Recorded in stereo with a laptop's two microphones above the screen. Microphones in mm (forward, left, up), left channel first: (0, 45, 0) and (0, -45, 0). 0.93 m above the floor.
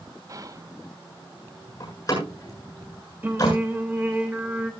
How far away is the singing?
About 3 m.